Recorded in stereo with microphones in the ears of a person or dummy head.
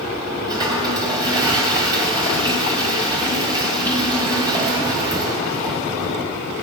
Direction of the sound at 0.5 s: 25° right (ahead or behind).